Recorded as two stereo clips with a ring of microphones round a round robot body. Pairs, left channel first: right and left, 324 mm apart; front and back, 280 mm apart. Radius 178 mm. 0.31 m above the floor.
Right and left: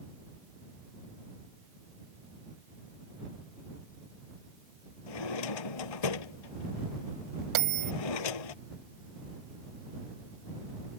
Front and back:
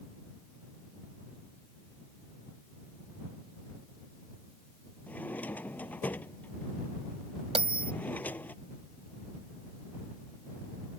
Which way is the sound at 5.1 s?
85° right.